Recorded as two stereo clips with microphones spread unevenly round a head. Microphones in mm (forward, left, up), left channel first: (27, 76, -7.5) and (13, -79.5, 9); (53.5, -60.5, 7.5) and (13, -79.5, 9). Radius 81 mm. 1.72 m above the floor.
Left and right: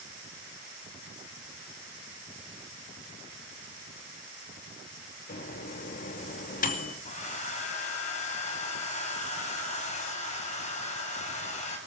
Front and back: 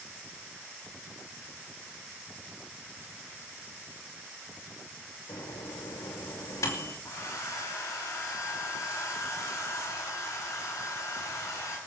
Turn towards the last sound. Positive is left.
turn(degrees=35)